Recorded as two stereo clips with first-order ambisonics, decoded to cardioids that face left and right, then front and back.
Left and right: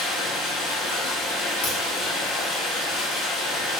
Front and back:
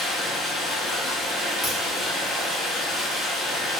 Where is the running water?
75° left, 1.2 m.